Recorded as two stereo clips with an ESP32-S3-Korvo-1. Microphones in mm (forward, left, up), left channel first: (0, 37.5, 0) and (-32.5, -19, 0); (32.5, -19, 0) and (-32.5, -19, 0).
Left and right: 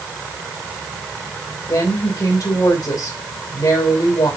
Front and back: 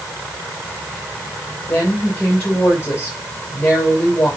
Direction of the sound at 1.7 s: 60° left.